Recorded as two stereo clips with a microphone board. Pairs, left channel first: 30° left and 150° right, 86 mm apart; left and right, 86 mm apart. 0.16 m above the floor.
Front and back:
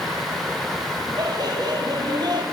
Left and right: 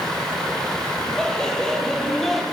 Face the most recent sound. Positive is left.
turn(degrees=180)